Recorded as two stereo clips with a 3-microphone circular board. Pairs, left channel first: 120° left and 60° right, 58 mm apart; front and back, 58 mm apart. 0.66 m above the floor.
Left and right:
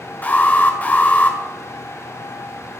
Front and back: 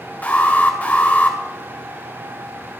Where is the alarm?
60° left, 2.5 m.